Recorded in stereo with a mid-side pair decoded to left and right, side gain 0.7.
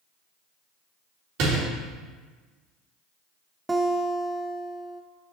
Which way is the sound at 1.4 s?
60° right.